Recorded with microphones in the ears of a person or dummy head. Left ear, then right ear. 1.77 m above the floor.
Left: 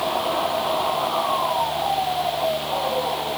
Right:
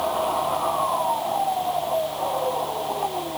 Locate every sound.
Only background noise.